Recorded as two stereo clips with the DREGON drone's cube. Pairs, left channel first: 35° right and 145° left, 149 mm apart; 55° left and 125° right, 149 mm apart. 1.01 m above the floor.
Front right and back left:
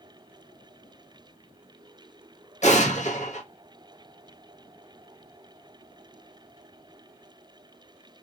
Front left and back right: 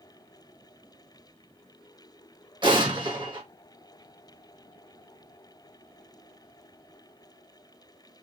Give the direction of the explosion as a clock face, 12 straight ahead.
2 o'clock.